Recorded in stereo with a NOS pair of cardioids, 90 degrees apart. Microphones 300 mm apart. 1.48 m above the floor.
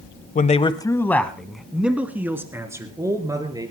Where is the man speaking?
30° left, 1.1 m; by 3.7 s 10° right, 4.5 m.